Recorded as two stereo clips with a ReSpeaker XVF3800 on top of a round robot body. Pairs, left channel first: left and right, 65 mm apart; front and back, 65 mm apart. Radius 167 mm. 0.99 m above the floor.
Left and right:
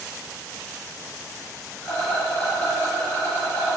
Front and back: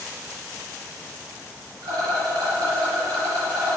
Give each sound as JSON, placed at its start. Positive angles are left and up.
{"t": 1.8, "sound": "a rattle", "azimuth_deg": 155, "distance_m": 1.2}